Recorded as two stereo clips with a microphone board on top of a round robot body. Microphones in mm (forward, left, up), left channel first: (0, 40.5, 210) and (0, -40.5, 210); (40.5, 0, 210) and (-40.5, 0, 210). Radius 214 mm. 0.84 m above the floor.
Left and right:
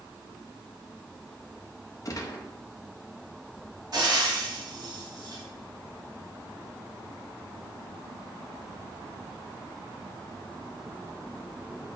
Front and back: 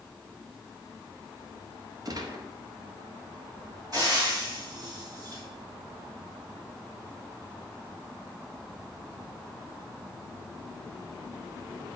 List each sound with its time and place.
2.0 s a gunshot: 140° left, 1.3 m
3.9 s frying: 135° right, 3 m